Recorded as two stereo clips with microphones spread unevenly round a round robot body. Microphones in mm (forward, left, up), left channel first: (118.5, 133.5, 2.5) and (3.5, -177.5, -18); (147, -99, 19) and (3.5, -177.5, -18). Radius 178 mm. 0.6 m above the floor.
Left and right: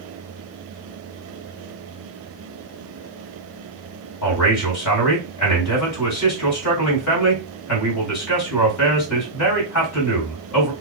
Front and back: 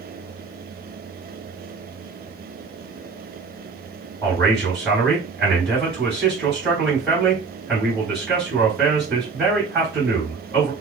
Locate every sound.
4.2 s a man speaking: 120° left, 3 m